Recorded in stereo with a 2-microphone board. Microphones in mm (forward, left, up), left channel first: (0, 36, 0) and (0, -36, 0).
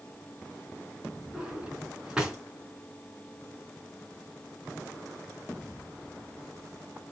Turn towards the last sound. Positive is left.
turn(degrees=-10)  # may be behind; listen again after turning